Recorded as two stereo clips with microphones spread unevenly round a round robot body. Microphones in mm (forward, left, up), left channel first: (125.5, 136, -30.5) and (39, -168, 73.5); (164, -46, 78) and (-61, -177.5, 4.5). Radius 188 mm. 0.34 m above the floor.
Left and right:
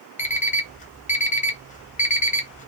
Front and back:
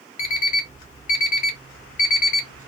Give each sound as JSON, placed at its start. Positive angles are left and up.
{"t": 0.2, "sound": "an alarm clock", "azimuth_deg": 25, "distance_m": 0.9}